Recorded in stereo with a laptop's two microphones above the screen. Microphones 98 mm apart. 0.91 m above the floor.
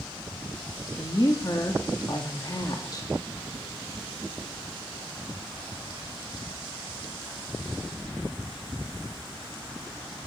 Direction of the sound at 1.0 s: 40° left (ahead or behind).